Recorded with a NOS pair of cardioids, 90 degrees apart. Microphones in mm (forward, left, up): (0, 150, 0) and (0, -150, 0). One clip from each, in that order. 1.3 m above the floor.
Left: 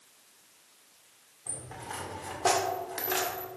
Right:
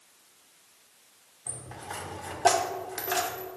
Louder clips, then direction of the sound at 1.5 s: Right 1 dB; 10° right.